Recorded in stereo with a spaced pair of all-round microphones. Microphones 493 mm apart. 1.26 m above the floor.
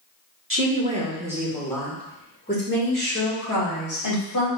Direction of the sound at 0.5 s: 25° right (ahead or behind).